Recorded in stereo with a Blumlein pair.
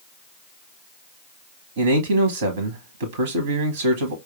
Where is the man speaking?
60° right, 0.8 m.